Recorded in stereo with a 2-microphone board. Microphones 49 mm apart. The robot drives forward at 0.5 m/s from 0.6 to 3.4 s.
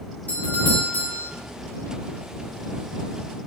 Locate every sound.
0.3 s a doorbell: 35° left (ahead or behind), 2 m